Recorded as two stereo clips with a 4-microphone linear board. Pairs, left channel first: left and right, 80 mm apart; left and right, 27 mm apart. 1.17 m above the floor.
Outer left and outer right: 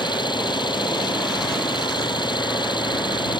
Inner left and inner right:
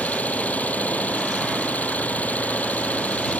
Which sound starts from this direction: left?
An engine running, at 0.0 s.